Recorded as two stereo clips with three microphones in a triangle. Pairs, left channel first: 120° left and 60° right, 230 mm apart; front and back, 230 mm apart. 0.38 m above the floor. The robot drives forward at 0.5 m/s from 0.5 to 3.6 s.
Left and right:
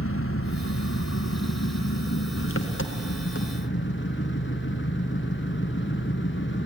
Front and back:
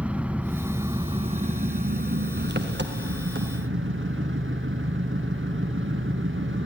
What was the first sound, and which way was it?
An engine running, 95° left.